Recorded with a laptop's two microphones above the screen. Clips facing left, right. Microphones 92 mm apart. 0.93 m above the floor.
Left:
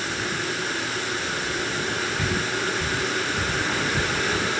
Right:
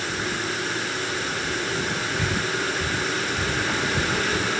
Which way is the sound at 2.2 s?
Centre (ahead or behind).